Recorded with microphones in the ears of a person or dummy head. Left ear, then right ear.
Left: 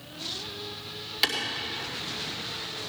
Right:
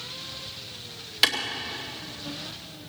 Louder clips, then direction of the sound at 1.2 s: Right 4 dB; 15° right (ahead or behind).